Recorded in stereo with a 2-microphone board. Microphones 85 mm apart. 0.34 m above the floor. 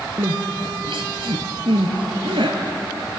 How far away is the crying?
About 2.5 m.